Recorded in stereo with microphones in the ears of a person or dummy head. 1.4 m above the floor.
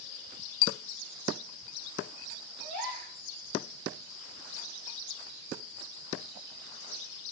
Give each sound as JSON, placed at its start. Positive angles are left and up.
{"t": 2.6, "sound": "a gasp", "side_deg": -65, "distance_m": 7.5}